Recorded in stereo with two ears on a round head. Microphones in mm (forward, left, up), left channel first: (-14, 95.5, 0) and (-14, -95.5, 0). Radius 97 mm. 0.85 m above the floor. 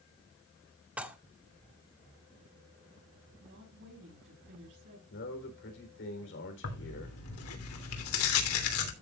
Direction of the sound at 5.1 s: 60° left (ahead or behind).